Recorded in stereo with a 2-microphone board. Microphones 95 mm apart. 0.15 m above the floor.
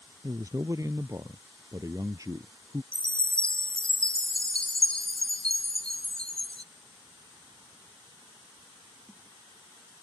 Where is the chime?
10° left (ahead or behind).